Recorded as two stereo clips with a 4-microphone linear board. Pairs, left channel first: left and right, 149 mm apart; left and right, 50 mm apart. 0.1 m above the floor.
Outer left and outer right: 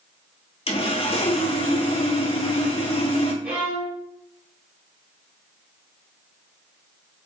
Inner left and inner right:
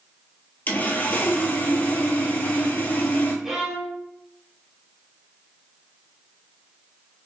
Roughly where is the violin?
Centre.